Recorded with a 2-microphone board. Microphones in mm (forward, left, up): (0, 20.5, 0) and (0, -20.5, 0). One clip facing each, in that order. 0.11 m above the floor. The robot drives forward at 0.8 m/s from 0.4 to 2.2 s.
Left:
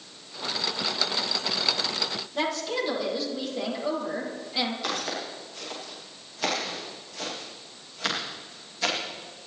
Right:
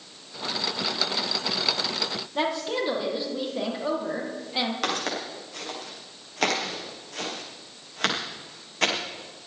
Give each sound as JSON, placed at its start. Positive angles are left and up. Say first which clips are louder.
{"t": 2.4, "sound": "a woman speaking", "louder": "right 2 dB", "side_deg": -20, "distance_m": 4.5}
{"t": 4.8, "sound": "footsteps", "louder": "right 3 dB", "side_deg": -85, "distance_m": 8.0}